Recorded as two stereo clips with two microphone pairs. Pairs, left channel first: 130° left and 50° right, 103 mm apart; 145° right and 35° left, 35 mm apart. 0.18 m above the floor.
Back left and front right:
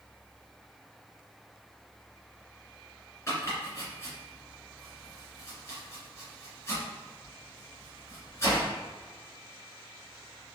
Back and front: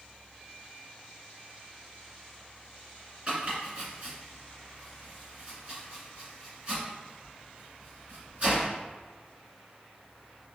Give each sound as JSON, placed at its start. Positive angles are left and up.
{"t": 3.3, "sound": "chopping", "azimuth_deg": 75, "distance_m": 1.9}